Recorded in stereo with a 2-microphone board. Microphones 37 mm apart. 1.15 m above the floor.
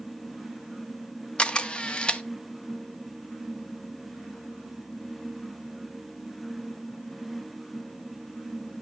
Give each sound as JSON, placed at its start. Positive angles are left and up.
{"t": 1.4, "sound": "a camera shutter", "side_deg": 25, "distance_m": 0.7}